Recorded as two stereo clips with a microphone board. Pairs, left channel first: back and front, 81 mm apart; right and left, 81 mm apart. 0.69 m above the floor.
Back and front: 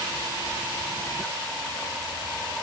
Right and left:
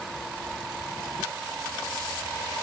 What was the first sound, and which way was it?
Only background noise.